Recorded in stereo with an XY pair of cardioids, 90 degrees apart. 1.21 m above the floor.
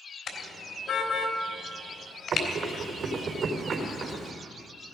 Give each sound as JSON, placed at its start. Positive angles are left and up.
{"t": 0.3, "sound": "a car horn", "azimuth_deg": 65, "distance_m": 3.0}
{"t": 2.3, "sound": "running footsteps", "azimuth_deg": -65, "distance_m": 4.5}